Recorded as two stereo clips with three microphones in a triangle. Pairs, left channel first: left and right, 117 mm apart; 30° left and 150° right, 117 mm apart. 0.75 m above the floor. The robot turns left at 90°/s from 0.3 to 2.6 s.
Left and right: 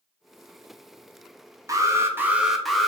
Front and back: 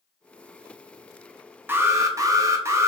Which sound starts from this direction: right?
An alarm, at 1.7 s.